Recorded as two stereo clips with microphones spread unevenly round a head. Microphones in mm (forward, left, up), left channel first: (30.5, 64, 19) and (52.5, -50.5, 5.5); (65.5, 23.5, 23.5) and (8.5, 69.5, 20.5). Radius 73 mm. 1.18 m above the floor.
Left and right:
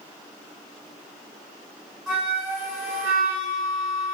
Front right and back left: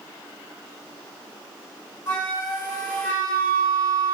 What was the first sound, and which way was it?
A flute, 15° left.